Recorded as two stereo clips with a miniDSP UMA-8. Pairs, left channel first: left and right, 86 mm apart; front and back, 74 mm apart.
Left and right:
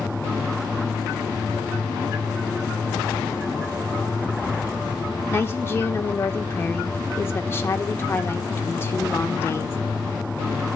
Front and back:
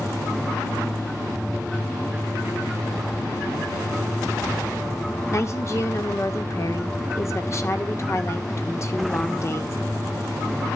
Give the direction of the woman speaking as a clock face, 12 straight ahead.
11 o'clock.